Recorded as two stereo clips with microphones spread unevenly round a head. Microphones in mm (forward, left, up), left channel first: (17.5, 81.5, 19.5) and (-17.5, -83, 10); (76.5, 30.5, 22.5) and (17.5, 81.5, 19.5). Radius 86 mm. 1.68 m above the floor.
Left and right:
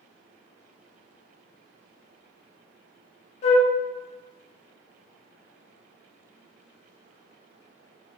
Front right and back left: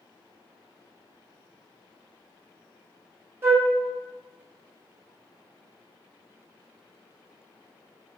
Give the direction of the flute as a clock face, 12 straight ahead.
9 o'clock.